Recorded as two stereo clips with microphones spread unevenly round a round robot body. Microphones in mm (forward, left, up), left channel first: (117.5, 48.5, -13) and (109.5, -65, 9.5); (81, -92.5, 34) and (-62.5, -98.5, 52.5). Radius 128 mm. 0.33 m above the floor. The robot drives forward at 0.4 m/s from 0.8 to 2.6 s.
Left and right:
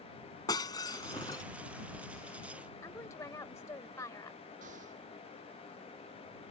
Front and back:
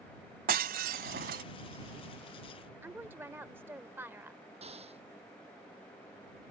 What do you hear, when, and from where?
0.5 s breaking glass: 155° left; by 1.4 s 160° left
2.8 s a woman speaking: 105° left
4.6 s an explosion: 135° right